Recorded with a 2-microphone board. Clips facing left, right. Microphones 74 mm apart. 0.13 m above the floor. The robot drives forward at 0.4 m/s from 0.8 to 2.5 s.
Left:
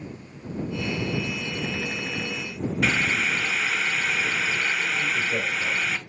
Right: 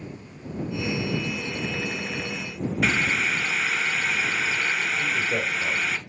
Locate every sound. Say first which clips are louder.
2.8 s boiling: even; 10° right (ahead or behind), 0.5 m
5.0 s a man speaking: even; 15° right (ahead or behind), 2.5 m